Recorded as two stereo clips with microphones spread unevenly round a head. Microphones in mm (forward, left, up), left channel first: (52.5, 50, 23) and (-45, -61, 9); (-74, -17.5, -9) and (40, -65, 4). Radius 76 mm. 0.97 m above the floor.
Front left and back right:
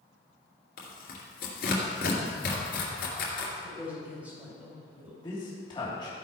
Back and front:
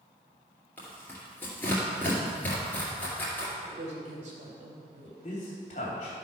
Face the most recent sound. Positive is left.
turn(degrees=115)